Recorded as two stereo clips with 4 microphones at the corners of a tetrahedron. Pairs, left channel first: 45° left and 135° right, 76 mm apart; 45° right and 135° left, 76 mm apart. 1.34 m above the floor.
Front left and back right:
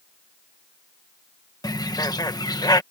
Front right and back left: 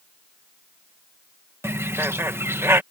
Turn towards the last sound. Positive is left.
turn(degrees=80)